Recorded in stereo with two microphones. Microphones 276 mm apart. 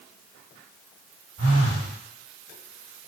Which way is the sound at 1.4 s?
60° right (ahead or behind).